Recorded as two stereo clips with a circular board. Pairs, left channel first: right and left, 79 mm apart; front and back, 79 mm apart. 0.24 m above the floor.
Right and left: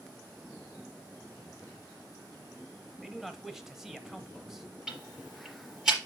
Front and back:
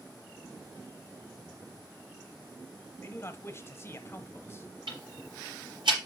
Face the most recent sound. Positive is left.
turn(degrees=180)